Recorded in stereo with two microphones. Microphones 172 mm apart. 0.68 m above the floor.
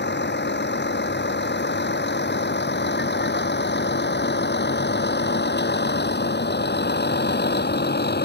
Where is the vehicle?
80° left; by 8.3 s 70° left (ahead or behind).